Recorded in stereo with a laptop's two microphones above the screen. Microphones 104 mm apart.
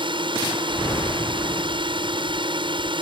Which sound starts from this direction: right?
A drone, at 0.0 s.